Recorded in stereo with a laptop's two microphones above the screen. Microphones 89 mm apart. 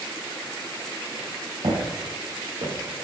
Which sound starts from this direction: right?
Footsteps, at 1.6 s.